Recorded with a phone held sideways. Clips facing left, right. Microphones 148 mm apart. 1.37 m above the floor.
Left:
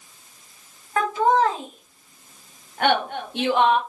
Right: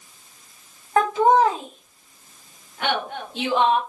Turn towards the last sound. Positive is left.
turn(degrees=70)  # may be behind; listen again after turning